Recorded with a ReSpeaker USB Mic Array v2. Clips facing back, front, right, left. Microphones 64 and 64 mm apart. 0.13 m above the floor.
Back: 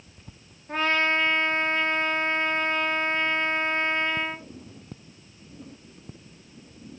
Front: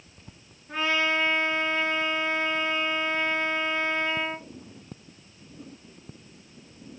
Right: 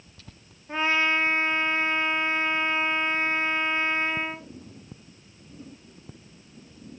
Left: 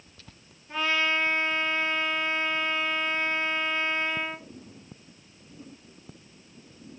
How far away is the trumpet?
About 0.7 m.